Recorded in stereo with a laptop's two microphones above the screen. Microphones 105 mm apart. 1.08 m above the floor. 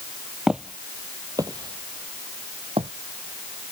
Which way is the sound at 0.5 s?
5° right (ahead or behind).